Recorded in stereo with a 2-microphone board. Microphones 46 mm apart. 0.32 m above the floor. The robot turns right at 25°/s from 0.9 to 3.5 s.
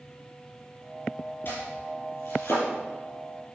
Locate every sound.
1.4 s chopping: 50° left (ahead or behind), 4.5 m; by 2.7 s 75° left (ahead or behind), 4.5 m